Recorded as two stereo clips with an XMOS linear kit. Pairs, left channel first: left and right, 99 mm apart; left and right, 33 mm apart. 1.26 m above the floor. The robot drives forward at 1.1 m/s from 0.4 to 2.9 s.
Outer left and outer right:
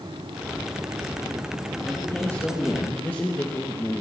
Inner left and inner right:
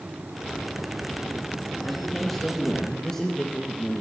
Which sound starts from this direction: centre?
A man speaking, at 1.8 s.